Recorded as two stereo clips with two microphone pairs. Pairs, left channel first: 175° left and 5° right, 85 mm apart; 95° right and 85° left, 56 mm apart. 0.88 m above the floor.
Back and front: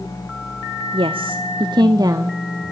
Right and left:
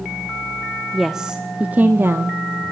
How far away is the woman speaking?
About 1.3 m.